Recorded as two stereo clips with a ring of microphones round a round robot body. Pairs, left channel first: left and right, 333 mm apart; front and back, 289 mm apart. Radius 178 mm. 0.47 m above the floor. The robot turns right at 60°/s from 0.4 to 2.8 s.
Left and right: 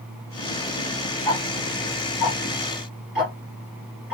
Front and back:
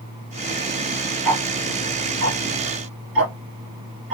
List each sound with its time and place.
1.2 s ticking: 90° left, 2 m; by 4.1 s 175° right, 2 m